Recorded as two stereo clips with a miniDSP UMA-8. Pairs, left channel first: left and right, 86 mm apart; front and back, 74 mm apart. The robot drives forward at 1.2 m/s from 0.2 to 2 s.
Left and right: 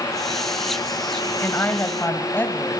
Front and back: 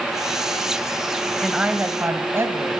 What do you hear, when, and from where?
1.4 s a woman speaking: 90° left, 1.1 m; by 2.8 s 145° left, 1.3 m